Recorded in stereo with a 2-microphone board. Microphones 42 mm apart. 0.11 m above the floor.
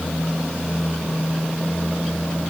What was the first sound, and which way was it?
Only background noise.